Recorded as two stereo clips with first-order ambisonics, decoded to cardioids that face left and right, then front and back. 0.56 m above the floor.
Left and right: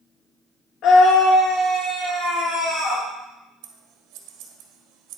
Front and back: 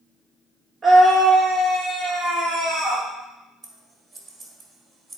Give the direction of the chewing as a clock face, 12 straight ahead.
No chewing in this recording.